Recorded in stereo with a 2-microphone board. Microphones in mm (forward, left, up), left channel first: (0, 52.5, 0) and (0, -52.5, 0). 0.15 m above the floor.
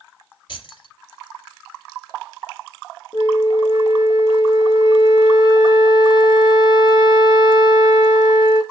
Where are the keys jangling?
50° left (ahead or behind), 1.9 m.